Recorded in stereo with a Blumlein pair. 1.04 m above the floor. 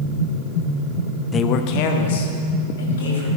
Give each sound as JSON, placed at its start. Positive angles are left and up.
{"t": 1.3, "sound": "a man speaking", "azimuth_deg": 20, "distance_m": 0.5}